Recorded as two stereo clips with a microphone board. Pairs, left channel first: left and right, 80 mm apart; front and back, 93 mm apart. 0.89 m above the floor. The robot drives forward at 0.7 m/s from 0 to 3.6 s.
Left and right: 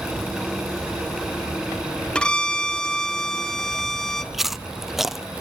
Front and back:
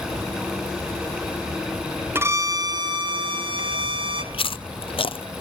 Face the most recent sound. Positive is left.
turn(degrees=0)